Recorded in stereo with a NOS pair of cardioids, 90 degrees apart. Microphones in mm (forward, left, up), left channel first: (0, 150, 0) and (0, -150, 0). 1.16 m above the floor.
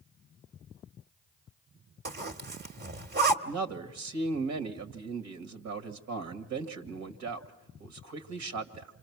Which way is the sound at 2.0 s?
35° right.